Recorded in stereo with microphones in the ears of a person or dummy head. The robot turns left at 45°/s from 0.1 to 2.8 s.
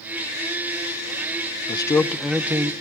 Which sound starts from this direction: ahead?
A man speaking, at 1.7 s.